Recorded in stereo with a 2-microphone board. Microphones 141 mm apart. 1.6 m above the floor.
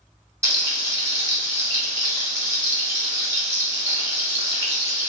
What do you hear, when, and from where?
0.4 s frying: 20° right (ahead or behind), 1.2 m